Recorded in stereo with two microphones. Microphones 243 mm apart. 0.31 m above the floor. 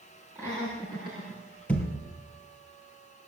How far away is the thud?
About 3 m.